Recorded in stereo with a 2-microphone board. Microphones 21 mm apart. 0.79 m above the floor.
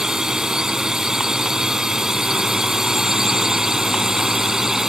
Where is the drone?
30° right (ahead or behind); by 4.9 s 25° right (ahead or behind).